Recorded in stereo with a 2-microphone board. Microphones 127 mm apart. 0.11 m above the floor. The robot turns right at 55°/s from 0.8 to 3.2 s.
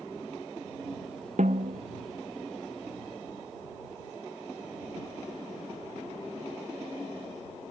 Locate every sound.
1.4 s a snare drum: 70° right (ahead or behind); by 1.8 s 80° right